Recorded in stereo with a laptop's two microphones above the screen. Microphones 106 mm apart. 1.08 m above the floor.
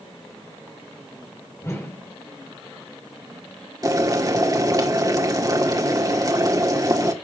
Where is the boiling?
35° right (ahead or behind), 1.7 m.